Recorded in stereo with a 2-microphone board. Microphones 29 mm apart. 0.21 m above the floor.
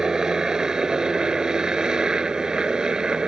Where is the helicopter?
25° right (ahead or behind); by 3.3 s 30° right (ahead or behind).